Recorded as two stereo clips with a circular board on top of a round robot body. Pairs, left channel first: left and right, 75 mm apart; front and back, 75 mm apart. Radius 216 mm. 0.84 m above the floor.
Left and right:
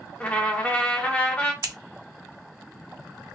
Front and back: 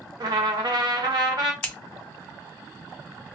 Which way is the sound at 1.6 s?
70° right.